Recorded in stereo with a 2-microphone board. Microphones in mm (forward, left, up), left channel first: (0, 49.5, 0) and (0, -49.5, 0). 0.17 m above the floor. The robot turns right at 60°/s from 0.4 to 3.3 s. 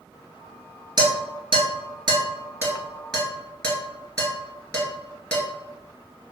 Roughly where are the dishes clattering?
Right.